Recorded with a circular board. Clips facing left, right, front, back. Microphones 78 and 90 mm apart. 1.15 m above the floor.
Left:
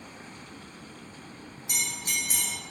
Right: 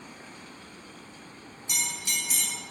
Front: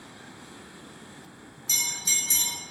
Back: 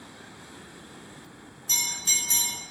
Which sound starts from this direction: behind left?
A bell, at 1.7 s.